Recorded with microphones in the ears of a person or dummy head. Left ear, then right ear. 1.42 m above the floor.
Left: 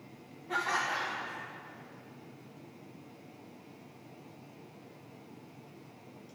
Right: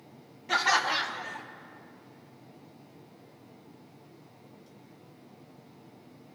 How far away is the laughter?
About 0.5 m.